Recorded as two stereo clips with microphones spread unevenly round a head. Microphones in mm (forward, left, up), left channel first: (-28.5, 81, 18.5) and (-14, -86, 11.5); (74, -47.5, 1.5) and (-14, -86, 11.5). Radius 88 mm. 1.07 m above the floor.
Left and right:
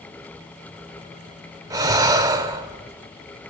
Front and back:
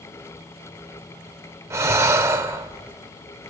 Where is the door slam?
I don't hear a door slam.